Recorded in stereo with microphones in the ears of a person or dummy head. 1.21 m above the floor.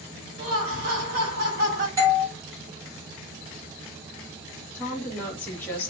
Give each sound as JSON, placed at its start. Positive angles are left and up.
{"t": 0.4, "sound": "laughter", "side_deg": -45, "distance_m": 1.1}
{"t": 2.0, "sound": "a doorbell", "side_deg": -15, "distance_m": 0.8}
{"t": 4.7, "sound": "a woman speaking", "side_deg": 10, "distance_m": 1.1}